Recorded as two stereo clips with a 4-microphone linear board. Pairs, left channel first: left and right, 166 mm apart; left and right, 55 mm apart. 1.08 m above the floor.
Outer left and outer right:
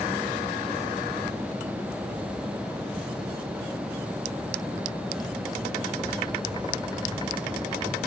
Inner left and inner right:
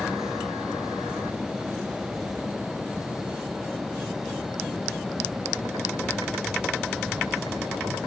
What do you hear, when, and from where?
Only background noise.